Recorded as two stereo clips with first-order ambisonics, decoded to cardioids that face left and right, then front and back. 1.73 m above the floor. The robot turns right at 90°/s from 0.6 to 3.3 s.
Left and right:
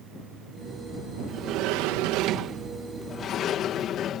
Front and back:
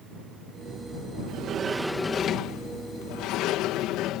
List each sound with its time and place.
1.3 s a sliding door: 145° right; by 4.2 s 35° left